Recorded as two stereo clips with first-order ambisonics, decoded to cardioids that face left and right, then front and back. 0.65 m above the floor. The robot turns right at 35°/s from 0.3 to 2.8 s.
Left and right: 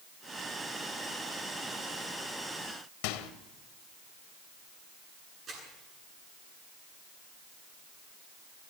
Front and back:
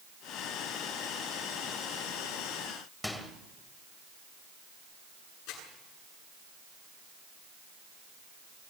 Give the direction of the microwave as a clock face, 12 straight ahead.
9 o'clock.